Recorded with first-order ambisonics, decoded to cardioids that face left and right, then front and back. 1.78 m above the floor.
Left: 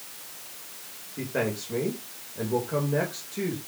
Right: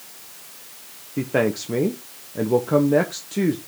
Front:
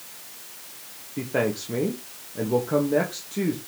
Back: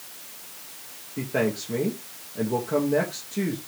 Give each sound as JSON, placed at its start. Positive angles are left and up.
{"t": 1.2, "sound": "a man speaking", "azimuth_deg": -85, "distance_m": 1.3}